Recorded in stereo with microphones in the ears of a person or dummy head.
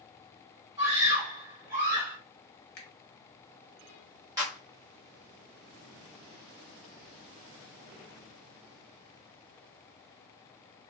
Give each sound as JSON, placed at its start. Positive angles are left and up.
{"t": 0.8, "sound": "a scream", "side_deg": -15, "distance_m": 1.7}
{"t": 2.8, "sound": "a finger snap", "side_deg": 55, "distance_m": 1.1}
{"t": 4.4, "sound": "a clap", "side_deg": -15, "distance_m": 1.5}